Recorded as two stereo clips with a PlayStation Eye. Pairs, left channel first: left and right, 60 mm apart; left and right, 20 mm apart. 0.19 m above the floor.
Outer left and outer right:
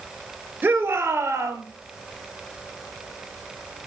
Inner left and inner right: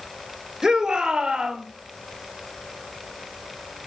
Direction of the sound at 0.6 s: 30° right (ahead or behind).